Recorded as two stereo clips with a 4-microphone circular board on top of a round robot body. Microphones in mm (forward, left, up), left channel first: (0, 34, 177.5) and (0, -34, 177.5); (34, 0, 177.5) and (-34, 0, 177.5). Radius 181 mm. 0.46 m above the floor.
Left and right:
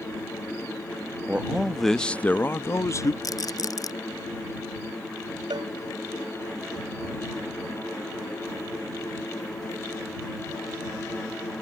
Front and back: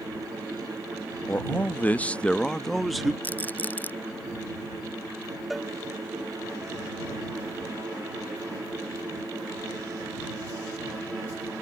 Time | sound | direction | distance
1.3 | a man speaking | 35° right | ?
3.2 | a rattle | 65° left | ?
5.5 | a cowbell | 90° right | ?